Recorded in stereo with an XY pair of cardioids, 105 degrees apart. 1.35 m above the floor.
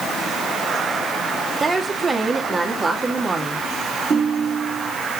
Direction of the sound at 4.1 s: 35° right.